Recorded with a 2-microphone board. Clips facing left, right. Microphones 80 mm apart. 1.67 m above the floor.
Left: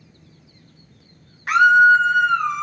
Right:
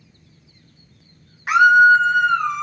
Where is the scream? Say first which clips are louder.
Right 1 dB; 10° right (ahead or behind), 1.4 m; by 2.6 s centre (ahead or behind), 2 m.